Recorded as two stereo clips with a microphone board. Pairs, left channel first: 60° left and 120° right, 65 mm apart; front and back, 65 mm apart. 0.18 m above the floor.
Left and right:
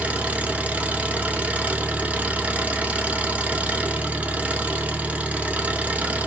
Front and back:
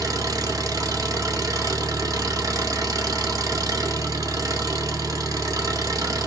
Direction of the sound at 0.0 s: 175° left.